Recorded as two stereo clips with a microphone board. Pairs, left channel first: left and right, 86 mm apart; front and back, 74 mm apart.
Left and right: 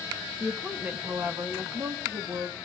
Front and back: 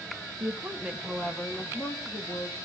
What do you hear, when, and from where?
0.4 s a woman speaking: 160° right, 0.7 m; by 2.7 s 30° right, 1.3 m